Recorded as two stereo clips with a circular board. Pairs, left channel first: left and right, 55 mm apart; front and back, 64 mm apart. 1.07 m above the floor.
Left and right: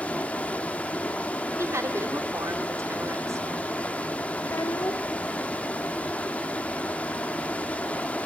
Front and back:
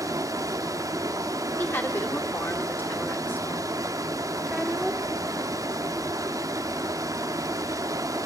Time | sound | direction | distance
0.0 | running water | 155° left | 1.5 m
1.6 | a woman speaking | 55° right | 3.5 m
4.4 | a child speaking | 95° left | 2 m